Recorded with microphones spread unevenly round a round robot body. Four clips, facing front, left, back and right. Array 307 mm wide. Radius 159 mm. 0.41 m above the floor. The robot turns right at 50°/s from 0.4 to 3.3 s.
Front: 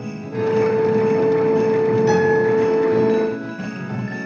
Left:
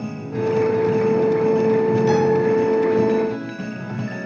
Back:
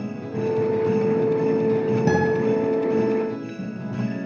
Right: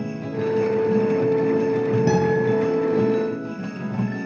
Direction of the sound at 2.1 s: 140° right.